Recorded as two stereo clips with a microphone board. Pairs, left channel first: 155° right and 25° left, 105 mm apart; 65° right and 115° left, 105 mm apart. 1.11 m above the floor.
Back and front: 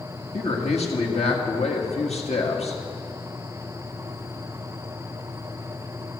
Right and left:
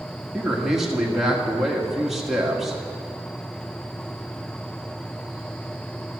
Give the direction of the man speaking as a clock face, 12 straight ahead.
5 o'clock.